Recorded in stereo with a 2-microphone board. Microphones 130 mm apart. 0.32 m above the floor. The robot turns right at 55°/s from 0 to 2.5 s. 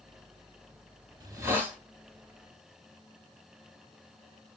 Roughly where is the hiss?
Ahead right.